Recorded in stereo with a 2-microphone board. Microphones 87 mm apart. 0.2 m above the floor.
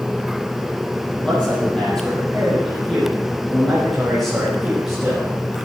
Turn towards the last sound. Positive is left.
turn(degrees=-5)  # may be behind; listen again after turning